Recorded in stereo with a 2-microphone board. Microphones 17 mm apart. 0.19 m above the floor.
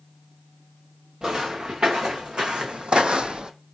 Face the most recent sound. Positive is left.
turn(degrees=-55)  # may be behind; listen again after turning